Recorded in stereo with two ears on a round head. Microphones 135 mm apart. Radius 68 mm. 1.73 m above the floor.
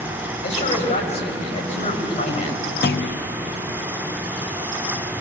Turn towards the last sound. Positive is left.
turn(degrees=70)  # may be behind; listen again after turning